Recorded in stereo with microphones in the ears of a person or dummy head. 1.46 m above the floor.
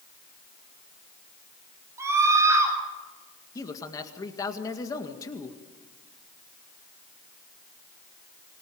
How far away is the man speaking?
About 1.7 m.